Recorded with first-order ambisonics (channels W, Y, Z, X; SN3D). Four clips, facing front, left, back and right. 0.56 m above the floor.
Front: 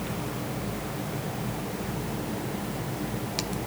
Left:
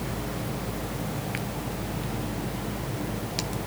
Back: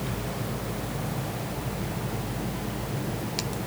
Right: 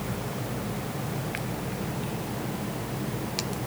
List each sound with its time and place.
Only background noise.